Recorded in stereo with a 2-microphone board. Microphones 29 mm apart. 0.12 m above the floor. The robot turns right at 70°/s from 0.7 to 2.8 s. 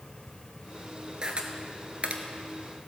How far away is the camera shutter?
About 1.1 m.